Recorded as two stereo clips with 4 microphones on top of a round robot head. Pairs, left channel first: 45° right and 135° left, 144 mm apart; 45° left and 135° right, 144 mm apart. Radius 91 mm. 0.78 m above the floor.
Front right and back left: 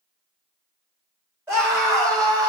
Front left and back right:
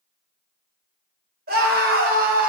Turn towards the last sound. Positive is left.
turn(degrees=-160)